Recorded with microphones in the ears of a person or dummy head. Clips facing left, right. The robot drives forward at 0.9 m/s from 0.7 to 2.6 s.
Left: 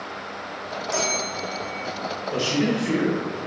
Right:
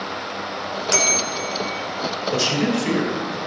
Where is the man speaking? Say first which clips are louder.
Right 1 dB; 55° right (ahead or behind), 3.5 m.